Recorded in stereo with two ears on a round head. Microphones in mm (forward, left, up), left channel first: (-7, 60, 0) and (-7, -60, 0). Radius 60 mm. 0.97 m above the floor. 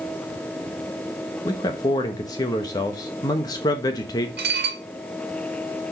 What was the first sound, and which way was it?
A man speaking, 25° left (ahead or behind).